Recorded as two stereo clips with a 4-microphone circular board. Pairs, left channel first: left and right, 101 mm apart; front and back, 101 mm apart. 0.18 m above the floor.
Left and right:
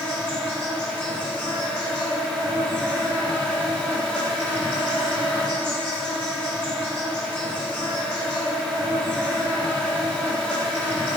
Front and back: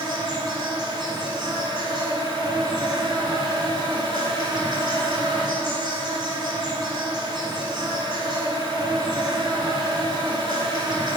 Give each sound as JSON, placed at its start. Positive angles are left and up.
{"t": 0.0, "sound": "an insect", "azimuth_deg": 165, "distance_m": 1.5}